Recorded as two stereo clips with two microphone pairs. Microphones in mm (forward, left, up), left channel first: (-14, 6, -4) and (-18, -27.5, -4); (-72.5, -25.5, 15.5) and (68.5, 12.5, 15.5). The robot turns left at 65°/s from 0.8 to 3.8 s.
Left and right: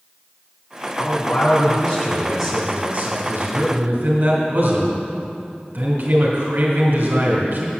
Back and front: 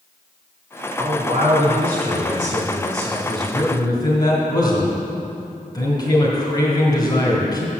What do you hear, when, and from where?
1.0 s a man speaking: 75° left, 1.7 m; by 7.7 s 110° right, 1.7 m